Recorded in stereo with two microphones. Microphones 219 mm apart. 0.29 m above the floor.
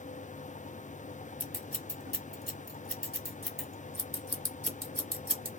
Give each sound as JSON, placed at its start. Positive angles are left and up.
{"t": 1.4, "sound": "scissors", "side_deg": -45, "distance_m": 1.0}